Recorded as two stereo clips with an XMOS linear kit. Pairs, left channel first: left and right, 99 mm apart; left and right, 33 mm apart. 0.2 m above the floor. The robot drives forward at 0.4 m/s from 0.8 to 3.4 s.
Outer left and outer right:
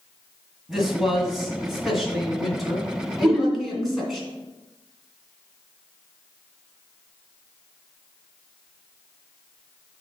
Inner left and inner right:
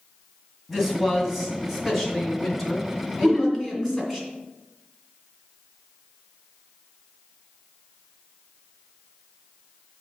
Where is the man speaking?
5° right (ahead or behind), 1.6 m; by 4.2 s centre (ahead or behind), 2.5 m.